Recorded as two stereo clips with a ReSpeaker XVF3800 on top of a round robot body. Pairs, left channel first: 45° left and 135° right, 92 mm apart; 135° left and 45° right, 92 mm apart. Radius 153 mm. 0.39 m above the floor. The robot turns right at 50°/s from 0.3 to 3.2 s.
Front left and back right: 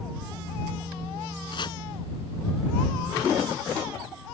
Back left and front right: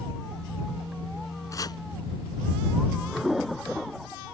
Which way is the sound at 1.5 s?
80° left.